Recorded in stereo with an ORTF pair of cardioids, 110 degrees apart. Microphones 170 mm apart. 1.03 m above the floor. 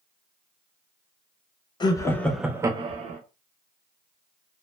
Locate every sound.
1.8 s laughter: 25° left, 0.8 m; by 3.2 s 50° right, 0.7 m